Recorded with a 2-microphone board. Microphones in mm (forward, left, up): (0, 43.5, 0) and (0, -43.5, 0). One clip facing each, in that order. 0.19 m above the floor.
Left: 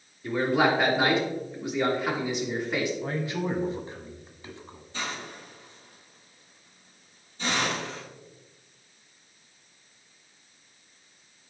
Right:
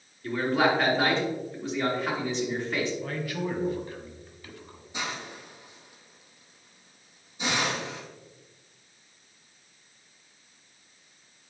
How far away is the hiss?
About 1.9 m.